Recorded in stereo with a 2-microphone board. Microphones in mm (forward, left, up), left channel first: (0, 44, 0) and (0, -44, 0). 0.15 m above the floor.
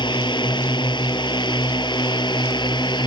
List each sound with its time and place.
0.0 s a drone: 60° left (ahead or behind)